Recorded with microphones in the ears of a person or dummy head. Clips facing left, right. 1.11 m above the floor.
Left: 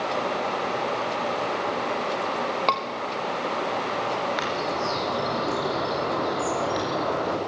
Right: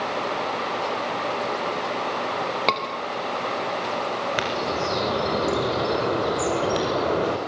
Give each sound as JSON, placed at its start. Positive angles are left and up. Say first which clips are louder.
{"t": 2.7, "sound": "a scream", "louder": "right 1 dB", "side_deg": -25, "distance_m": 2.5}
{"t": 4.4, "sound": "a bird", "louder": "right 2 dB", "side_deg": -40, "distance_m": 5.0}